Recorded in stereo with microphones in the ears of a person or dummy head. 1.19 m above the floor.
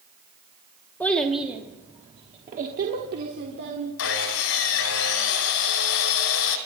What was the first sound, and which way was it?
A child speaking, 5° left (ahead or behind).